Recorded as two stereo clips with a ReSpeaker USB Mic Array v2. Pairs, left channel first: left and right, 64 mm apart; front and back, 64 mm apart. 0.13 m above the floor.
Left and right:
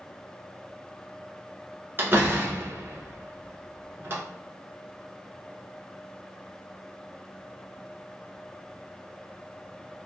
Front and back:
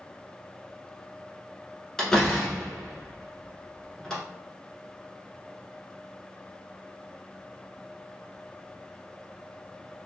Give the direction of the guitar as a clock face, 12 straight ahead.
No guitar in this recording.